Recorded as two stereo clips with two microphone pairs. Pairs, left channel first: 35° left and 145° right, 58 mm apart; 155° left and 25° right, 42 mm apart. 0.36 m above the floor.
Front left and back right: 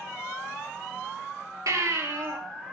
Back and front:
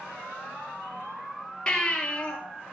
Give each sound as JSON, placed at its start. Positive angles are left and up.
{"t": 1.7, "sound": "a baby crying", "azimuth_deg": -130, "distance_m": 3.0}